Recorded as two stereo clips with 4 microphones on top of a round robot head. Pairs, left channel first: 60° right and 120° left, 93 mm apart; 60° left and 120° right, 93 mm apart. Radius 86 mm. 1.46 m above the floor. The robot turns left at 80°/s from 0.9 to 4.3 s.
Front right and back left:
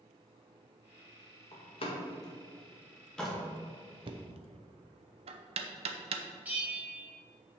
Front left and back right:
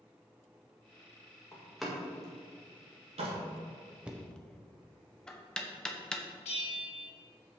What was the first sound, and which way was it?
A door slam, 5° right.